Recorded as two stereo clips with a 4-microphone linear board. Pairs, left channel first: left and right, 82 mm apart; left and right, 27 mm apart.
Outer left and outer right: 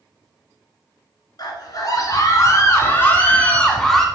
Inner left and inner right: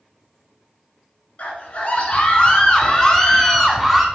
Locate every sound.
1.4 s a scream: 55° left (ahead or behind), 2 m; by 4.0 s centre (ahead or behind), 1.3 m